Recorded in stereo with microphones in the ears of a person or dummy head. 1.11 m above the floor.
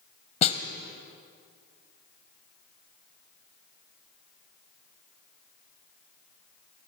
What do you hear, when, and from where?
0.4 s a snare drum: 35° left (ahead or behind), 1.6 m